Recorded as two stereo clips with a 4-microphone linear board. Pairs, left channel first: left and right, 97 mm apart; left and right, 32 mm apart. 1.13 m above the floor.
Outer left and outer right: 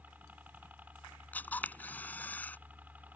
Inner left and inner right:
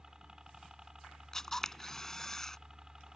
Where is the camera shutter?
15° left (ahead or behind).